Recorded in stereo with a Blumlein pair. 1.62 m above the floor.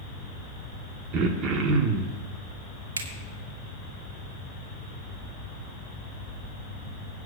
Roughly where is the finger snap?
Ahead right.